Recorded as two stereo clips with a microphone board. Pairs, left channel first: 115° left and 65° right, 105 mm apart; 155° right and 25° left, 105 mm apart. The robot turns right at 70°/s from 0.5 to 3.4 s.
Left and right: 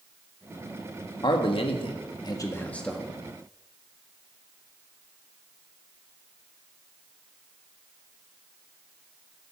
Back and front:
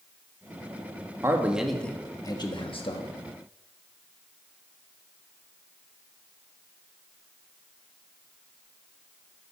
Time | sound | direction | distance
1.2 | a man speaking | 80° left | 1.5 m